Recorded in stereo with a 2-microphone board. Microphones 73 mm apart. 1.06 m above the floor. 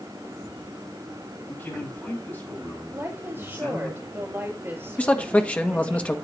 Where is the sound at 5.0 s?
20° left (ahead or behind), 1.3 m.